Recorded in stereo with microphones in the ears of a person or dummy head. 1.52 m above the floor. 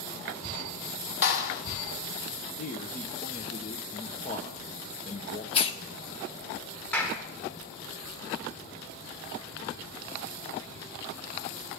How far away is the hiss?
About 0.9 m.